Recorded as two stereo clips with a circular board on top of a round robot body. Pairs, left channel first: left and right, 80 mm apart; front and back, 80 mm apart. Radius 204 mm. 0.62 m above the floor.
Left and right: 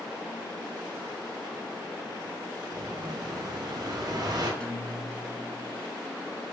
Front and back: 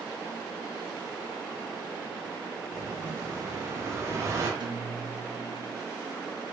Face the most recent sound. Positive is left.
turn(degrees=170)